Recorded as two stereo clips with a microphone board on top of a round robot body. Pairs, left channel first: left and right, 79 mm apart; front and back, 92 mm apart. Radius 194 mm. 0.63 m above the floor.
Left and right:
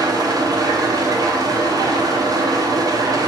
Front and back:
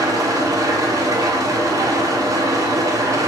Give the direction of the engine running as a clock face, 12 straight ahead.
4 o'clock.